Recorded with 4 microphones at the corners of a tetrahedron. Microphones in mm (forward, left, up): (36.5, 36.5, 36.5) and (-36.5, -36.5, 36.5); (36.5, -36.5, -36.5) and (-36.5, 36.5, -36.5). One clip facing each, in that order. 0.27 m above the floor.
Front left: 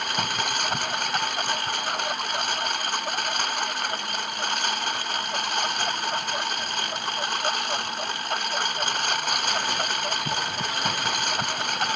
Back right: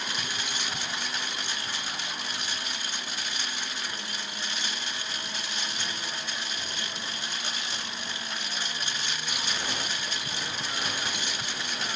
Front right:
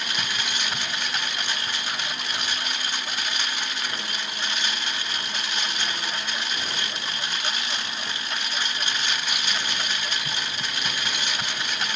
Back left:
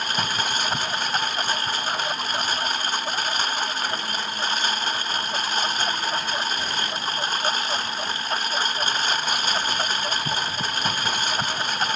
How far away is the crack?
I don't hear a crack.